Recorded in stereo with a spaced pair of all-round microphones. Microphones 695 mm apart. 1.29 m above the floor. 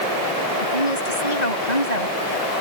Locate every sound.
0.6 s a woman speaking: 80° left